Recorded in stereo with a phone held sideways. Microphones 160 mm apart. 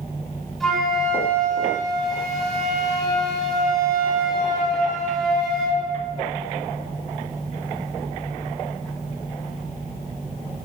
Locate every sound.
0.6 s a flute: centre (ahead or behind), 3 m